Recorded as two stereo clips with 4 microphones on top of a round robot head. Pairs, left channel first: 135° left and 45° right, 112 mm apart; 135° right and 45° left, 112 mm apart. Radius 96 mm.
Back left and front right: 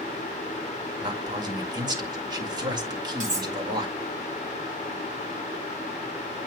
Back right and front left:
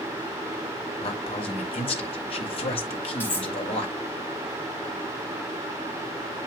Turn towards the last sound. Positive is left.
turn(degrees=-60)